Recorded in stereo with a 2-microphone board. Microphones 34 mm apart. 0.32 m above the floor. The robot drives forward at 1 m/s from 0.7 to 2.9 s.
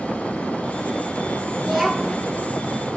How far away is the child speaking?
About 3.5 m.